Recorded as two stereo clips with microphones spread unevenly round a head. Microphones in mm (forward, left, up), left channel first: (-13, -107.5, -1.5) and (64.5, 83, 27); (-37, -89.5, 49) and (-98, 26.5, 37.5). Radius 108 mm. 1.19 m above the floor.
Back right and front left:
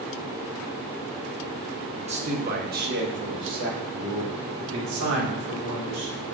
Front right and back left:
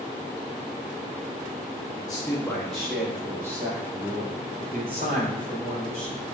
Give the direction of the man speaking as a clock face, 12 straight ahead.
12 o'clock.